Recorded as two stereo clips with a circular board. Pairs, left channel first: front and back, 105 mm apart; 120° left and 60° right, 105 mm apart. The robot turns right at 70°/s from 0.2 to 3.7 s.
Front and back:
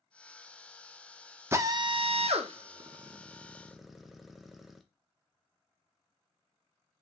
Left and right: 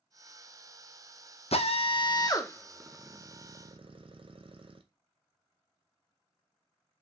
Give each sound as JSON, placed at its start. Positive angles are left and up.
{"t": 1.5, "sound": "a drill", "azimuth_deg": 115, "distance_m": 0.6}